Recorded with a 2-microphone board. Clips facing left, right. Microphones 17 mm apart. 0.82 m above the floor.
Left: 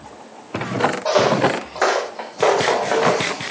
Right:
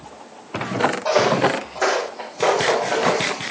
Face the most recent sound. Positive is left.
turn(degrees=80)